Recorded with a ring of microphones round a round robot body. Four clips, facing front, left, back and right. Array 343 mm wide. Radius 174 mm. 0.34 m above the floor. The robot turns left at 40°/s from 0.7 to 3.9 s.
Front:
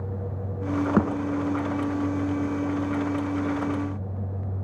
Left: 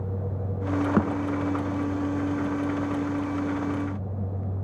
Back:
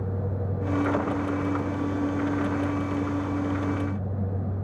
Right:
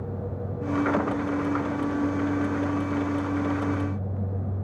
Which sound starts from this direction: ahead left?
A thud, at 1.0 s.